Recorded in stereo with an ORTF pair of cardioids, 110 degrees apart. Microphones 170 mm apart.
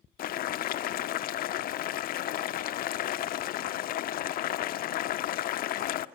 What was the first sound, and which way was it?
Boiling, 60° left.